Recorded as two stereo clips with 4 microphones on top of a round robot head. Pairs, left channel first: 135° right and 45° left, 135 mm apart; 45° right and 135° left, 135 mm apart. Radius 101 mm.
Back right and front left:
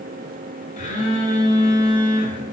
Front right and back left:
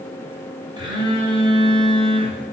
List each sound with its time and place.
0.8 s a phone buzzing: 170° right, 2.5 m